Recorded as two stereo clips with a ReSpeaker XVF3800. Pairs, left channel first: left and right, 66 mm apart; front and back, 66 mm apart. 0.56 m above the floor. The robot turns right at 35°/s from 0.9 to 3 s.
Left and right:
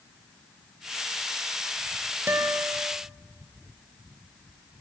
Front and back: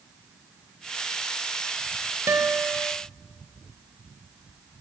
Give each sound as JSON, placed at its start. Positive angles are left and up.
{"t": 2.3, "sound": "a guitar", "azimuth_deg": -140, "distance_m": 2.5}